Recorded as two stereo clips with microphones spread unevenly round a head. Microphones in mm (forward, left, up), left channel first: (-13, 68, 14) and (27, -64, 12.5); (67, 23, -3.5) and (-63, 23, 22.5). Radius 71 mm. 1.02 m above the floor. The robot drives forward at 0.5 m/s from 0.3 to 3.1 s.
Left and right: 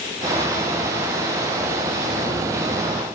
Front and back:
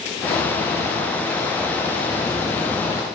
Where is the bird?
I don't hear a bird.